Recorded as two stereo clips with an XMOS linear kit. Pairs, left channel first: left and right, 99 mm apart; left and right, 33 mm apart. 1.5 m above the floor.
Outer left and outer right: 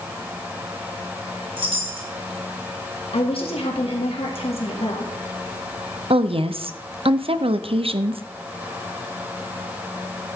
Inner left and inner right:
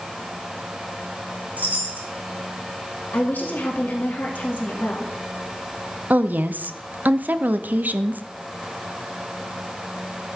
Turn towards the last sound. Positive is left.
turn(degrees=-70)  # may be behind; listen again after turning